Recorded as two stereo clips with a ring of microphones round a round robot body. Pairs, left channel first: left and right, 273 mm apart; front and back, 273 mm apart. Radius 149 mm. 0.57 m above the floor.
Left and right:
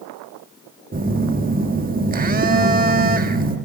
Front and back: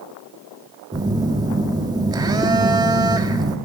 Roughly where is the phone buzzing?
Behind right.